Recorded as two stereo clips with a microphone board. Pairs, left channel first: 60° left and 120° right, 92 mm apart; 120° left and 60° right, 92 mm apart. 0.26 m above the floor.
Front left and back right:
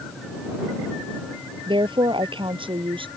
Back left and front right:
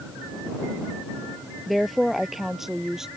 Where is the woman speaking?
150° right; by 3.1 s 145° right.